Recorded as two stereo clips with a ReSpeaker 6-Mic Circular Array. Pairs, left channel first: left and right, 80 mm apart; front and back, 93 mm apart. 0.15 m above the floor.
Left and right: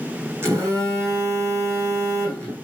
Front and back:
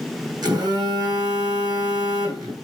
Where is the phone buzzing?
140° right, 5.5 m.